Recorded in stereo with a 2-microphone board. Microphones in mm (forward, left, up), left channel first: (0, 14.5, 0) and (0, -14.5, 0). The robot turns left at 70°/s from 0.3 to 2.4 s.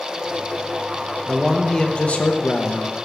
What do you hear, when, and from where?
1.3 s a man speaking: straight behind, 0.9 m; by 3.0 s 100° left, 0.9 m